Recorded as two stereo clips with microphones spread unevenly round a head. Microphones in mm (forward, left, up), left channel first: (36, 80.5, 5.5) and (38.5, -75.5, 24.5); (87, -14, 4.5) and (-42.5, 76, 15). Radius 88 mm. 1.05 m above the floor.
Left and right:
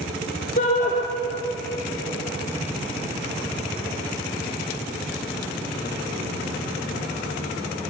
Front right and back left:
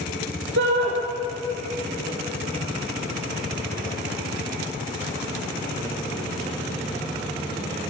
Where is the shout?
140° left, 3 m.